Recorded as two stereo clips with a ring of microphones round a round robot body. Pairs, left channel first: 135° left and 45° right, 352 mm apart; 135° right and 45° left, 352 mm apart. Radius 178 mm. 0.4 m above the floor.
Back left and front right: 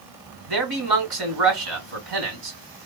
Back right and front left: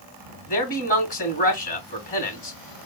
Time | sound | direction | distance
0.5 | a man speaking | 70° right | 3 m